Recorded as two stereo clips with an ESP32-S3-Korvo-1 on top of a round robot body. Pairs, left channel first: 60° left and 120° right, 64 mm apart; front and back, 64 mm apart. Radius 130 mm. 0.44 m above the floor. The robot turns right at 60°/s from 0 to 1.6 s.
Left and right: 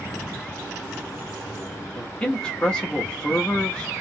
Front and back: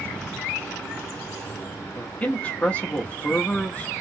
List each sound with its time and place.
1.9 s a man speaking: 15° left, 0.9 m